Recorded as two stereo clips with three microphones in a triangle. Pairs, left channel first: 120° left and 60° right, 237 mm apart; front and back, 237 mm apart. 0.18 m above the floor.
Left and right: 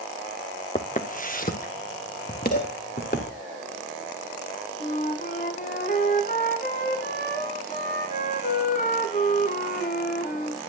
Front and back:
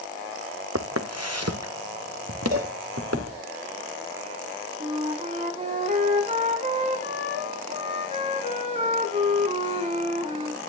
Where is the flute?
140° left, 1.3 m.